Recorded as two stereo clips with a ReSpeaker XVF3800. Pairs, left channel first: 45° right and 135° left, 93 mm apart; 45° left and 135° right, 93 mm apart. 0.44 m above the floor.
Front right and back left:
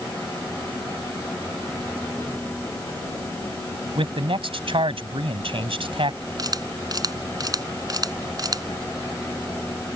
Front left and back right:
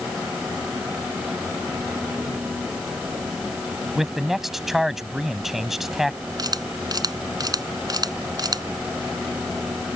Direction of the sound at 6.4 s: Straight behind.